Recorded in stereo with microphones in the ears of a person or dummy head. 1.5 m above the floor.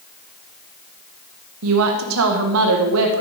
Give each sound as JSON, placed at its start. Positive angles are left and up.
{"t": 1.6, "sound": "a woman speaking", "side_deg": -70, "distance_m": 1.6}